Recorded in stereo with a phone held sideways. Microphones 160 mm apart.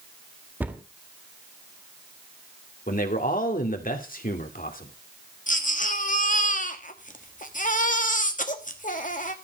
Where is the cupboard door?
10° right (ahead or behind), 1.5 m.